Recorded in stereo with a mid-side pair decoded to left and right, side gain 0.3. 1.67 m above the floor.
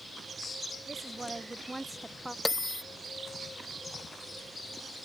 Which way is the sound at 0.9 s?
25° right.